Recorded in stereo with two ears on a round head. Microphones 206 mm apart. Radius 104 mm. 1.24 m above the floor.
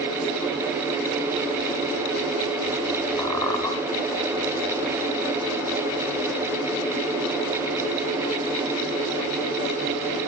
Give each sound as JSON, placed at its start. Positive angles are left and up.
{"t": 3.2, "sound": "a squeak", "side_deg": 15, "distance_m": 2.5}